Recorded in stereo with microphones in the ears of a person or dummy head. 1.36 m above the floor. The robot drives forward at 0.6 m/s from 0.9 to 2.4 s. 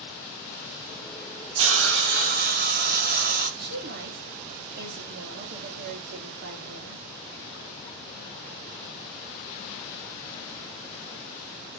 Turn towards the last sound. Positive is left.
turn(degrees=-50)  # may be behind; listen again after turning